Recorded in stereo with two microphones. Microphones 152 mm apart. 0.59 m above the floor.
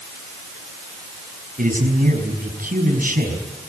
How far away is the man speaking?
About 5.5 m.